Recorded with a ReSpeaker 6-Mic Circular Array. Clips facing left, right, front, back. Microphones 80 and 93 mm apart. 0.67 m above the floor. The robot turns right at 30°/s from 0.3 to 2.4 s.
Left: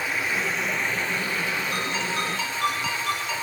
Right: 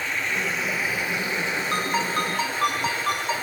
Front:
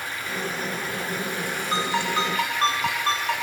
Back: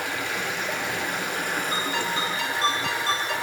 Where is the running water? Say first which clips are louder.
Even, back 2 dB; 170° left, 2 m; by 3.4 s 125° right, 2 m.